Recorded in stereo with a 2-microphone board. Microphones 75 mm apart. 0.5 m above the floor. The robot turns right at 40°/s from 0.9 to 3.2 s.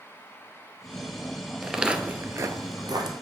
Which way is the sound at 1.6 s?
5° right (ahead or behind).